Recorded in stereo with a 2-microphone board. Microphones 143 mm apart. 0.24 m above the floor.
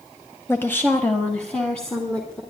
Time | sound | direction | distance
0.5 | a woman speaking | 15° left (ahead or behind) | 1.1 m